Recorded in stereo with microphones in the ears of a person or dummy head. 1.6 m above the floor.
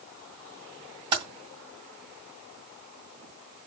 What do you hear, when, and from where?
1.1 s typing on a keyboard: 20° right (ahead or behind), 2.5 m